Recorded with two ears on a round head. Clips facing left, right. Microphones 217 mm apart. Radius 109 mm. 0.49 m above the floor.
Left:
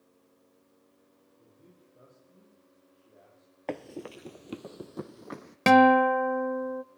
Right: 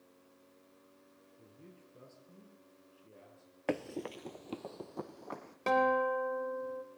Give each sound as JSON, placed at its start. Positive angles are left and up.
{"t": 1.4, "sound": "a man speaking", "side_deg": -40, "distance_m": 9.5}
{"t": 3.7, "sound": "running footsteps", "side_deg": -10, "distance_m": 0.6}
{"t": 5.7, "sound": "a guitar", "side_deg": 80, "distance_m": 0.7}